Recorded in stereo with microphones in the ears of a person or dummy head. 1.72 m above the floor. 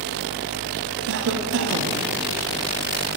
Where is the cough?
55° right (ahead or behind), 0.6 m.